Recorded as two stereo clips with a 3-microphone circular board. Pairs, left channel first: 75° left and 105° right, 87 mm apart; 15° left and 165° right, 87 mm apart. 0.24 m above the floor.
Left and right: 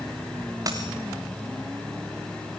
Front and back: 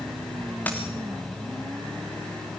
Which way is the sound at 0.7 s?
55° right.